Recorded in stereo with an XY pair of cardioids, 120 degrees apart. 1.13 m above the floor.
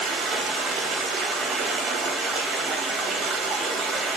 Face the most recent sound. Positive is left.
turn(degrees=-60)